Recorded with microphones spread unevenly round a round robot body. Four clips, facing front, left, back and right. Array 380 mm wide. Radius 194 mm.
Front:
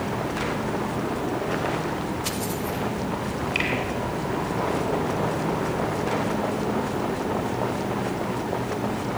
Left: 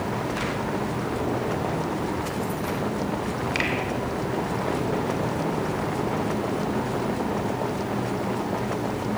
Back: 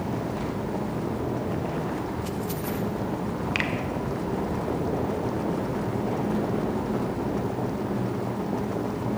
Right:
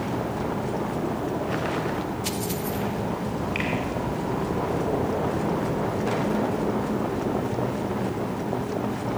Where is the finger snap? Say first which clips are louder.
Left 1 dB, front 1 dB; 145° left, 2.5 m.